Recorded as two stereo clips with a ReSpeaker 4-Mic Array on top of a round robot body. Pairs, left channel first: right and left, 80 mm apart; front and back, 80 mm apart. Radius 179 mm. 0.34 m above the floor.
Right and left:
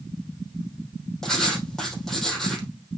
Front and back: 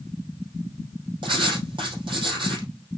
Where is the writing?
175° right, 3 m.